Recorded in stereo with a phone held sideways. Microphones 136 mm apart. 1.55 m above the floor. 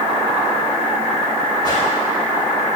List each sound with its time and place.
1.6 s a whoosh: 30° left (ahead or behind), 2 m